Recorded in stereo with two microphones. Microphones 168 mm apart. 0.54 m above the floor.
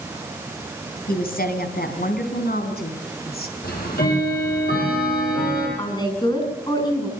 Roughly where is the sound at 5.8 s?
Left.